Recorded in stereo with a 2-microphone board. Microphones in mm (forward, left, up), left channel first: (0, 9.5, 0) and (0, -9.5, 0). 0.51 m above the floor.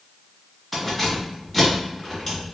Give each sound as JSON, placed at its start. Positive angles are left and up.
{"t": 0.7, "sound": "keys jangling", "side_deg": 5, "distance_m": 1.9}